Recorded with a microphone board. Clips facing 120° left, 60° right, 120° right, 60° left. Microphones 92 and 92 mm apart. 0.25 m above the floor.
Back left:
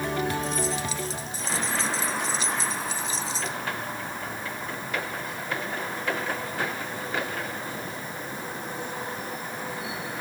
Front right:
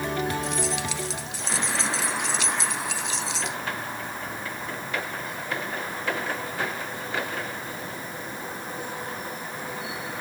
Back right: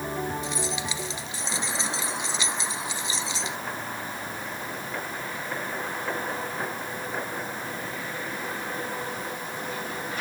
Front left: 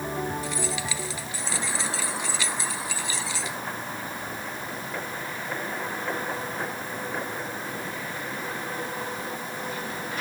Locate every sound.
0.4 s keys jangling: 50° right